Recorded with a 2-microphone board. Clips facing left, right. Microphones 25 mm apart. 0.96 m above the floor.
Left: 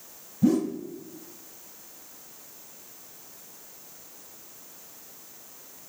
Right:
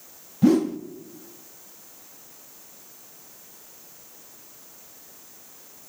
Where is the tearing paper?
I don't hear tearing paper.